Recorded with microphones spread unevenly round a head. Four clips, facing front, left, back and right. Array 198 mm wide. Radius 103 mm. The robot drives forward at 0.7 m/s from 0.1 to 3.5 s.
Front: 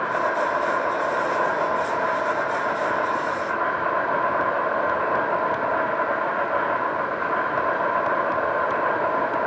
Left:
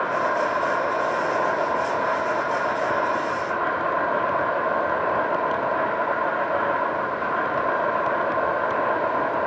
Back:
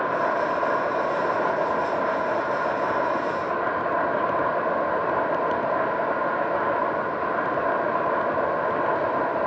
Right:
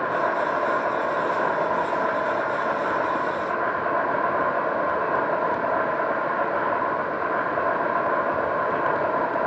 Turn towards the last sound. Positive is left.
turn(degrees=150)